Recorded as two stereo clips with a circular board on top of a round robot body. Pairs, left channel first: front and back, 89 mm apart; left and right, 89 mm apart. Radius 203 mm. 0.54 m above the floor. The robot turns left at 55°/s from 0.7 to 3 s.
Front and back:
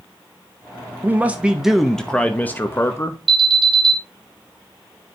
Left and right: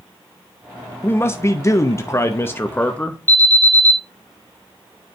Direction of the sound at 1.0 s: 130° left.